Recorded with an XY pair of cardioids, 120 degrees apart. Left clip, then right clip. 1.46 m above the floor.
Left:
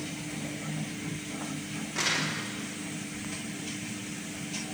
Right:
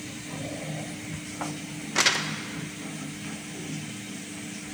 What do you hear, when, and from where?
1.9 s crumpling: 55° right, 1.0 m